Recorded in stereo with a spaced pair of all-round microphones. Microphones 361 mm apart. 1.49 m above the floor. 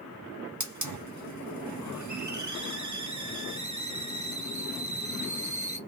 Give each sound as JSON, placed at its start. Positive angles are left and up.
{"t": 0.6, "sound": "a hiss", "side_deg": -50, "distance_m": 0.8}